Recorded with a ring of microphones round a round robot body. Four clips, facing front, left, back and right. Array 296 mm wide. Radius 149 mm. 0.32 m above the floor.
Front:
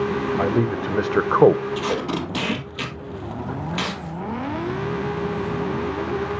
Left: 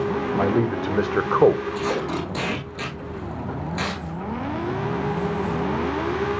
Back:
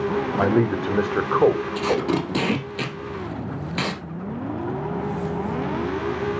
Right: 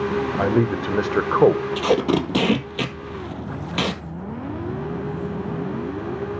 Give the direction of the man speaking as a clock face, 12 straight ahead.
5 o'clock.